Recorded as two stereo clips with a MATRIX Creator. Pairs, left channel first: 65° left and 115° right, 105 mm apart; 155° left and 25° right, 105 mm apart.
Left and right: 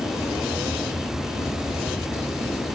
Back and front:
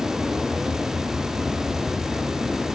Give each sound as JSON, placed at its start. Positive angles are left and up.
{"t": 0.0, "sound": "an aircraft", "azimuth_deg": 80}